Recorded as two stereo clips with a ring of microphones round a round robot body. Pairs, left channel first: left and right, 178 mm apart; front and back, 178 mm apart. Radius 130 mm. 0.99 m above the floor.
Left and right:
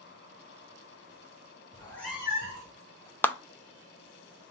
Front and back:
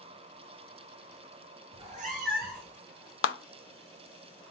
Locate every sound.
1.7 s a cat meowing: 145° left, 0.8 m; by 2.8 s 140° right, 1.1 m
3.2 s a clap: 10° left, 0.6 m